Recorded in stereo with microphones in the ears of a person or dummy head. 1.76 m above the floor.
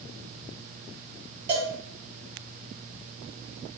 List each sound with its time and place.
1.5 s a cowbell: 25° right (ahead or behind), 0.6 m